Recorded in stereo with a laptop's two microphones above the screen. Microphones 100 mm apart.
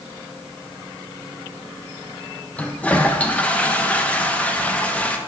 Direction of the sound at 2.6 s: 15° left (ahead or behind).